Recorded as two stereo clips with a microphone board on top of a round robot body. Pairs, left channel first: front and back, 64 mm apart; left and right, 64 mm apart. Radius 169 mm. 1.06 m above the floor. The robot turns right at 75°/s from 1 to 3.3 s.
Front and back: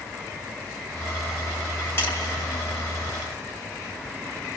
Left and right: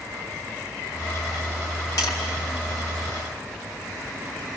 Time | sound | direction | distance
2.0 | tapping | 60° left | 4.5 m